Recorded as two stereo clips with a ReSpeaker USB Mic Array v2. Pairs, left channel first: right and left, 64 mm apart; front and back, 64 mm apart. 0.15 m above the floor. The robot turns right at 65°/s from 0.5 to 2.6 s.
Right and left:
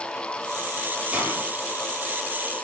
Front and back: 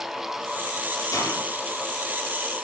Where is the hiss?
20° left, 3 m; by 1.5 s 40° left, 3 m.